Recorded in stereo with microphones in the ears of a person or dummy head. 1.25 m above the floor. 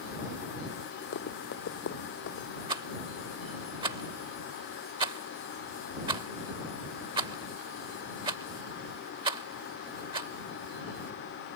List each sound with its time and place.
1.1 s running footsteps: 60° left (ahead or behind); by 2.5 s 50° left (ahead or behind)
2.7 s a rattle: 25° right (ahead or behind)